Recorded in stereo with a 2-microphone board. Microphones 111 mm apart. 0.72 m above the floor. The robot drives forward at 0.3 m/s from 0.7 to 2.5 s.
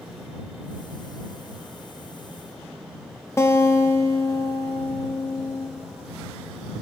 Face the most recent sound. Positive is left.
turn(degrees=25)  # may be behind; listen again after turning